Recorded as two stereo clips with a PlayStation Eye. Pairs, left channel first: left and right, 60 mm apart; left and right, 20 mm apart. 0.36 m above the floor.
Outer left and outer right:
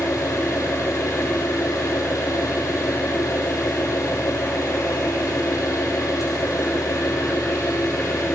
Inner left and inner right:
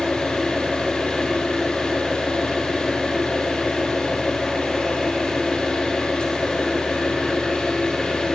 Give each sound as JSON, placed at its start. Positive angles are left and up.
{"t": 0.0, "sound": "an engine running", "side_deg": 70, "distance_m": 7.0}